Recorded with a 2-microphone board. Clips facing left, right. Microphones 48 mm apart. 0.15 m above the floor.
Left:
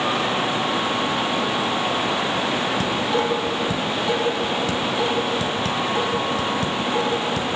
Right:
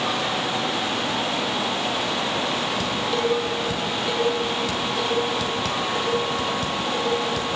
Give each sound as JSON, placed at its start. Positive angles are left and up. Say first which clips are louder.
{"t": 2.8, "sound": "dishes clattering", "louder": "left 2 dB", "side_deg": 20, "distance_m": 3.0}